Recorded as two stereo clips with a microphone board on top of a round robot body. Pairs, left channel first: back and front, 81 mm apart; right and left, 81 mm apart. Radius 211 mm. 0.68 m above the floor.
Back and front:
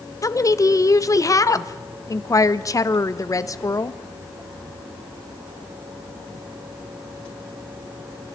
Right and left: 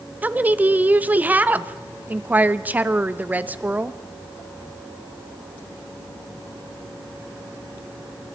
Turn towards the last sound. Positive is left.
turn(degrees=155)